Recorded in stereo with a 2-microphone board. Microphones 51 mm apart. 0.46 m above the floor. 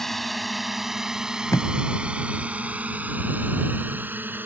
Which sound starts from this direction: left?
Tape being pulled, at 1.5 s.